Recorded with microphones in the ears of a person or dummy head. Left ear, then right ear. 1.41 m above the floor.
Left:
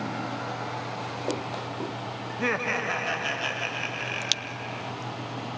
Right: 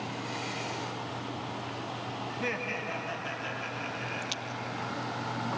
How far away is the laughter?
About 0.6 m.